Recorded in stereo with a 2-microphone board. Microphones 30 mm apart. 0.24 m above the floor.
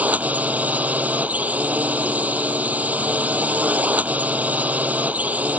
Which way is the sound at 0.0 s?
60° right (ahead or behind).